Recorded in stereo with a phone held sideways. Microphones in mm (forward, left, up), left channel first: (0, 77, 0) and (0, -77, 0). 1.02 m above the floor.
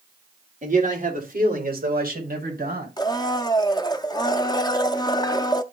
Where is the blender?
25° left (ahead or behind), 0.6 m.